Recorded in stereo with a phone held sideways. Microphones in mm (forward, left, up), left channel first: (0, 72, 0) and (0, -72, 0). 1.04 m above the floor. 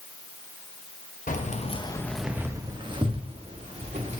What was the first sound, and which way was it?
Keys jangling, 65° left (ahead or behind).